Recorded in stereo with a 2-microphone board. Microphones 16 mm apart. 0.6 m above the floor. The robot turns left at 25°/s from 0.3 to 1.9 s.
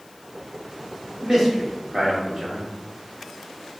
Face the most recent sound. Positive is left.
turn(degrees=-40)  # may be behind; listen again after turning